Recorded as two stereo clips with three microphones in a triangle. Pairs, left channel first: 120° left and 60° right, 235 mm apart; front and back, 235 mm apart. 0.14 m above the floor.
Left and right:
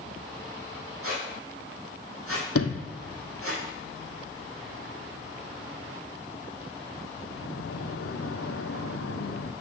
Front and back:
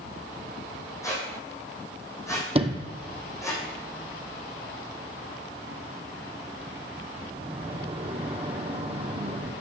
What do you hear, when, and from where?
1.0 s a squeak: 75° right, 2.5 m
2.5 s a sliding door: 115° left, 0.9 m